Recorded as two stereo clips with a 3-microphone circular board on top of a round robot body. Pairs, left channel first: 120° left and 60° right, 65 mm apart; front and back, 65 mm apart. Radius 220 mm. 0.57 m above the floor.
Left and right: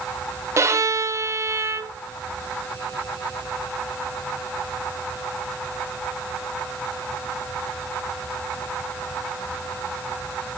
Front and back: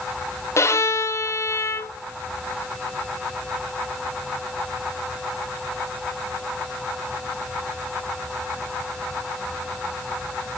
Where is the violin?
30° right, 1.1 m.